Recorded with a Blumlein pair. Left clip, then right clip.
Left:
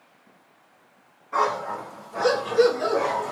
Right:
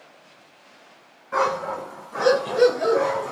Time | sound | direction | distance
1.3 | a dog barking | 30° right | 2.5 m